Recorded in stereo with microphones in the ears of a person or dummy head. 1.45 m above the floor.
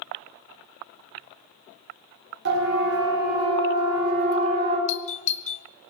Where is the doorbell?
35° left (ahead or behind), 0.9 m.